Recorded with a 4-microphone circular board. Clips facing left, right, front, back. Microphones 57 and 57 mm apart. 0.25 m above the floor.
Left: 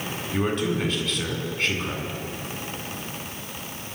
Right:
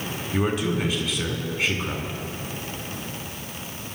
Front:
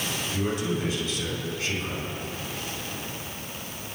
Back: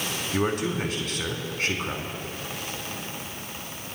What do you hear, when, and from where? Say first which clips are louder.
0.3 s a man speaking: right 1 dB, back 3 dB; 170° right, 3 m